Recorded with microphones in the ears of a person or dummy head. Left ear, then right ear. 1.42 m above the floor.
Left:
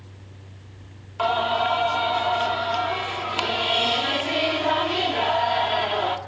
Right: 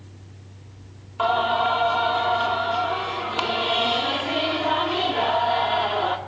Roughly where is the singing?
Centre.